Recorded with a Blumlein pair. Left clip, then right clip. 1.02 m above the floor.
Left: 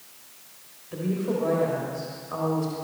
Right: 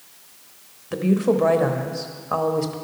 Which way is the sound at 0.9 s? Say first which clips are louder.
Right 8 dB; 35° right.